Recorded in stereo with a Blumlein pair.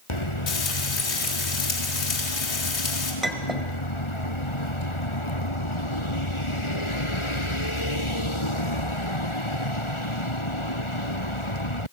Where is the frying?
40° left, 3.5 m.